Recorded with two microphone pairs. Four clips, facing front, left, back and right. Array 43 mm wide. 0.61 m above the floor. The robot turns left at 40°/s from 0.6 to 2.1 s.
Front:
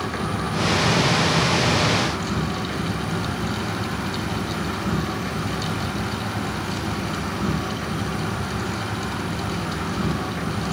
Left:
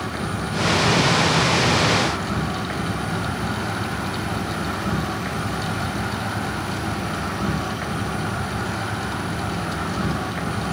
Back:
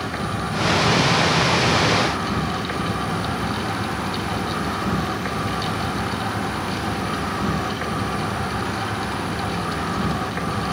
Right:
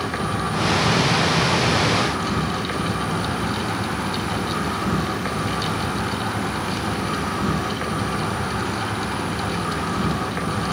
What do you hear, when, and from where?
0.0 s an insect: 70° right, 1.2 m; by 10.7 s 130° right, 1.2 m